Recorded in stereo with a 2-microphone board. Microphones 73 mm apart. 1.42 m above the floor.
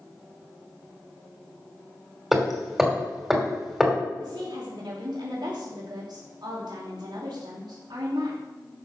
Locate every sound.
2.3 s hammering: 5° right (ahead or behind), 2.5 m
4.2 s a woman speaking: 85° right, 3 m